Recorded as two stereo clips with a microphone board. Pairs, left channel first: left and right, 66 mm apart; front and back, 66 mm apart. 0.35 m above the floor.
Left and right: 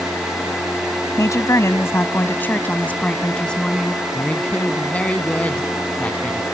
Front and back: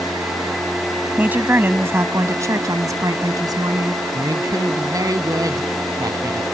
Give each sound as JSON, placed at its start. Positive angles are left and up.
{"t": 1.2, "sound": "a woman speaking", "azimuth_deg": 115}
{"t": 4.2, "sound": "a woman speaking", "azimuth_deg": 160}